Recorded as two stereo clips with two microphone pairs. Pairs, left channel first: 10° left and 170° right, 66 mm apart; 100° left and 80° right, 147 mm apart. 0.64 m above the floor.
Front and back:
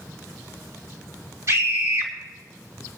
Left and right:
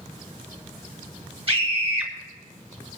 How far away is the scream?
About 3 m.